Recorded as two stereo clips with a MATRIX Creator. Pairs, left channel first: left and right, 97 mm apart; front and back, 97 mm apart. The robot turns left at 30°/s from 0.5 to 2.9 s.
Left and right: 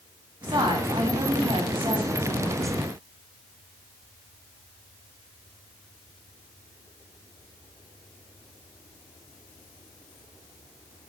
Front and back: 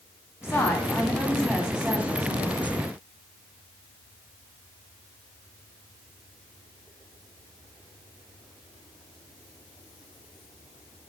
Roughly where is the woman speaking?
Ahead right.